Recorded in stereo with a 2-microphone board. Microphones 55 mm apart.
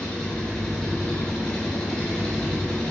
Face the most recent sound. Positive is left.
turn(degrees=15)  # may be behind; listen again after turning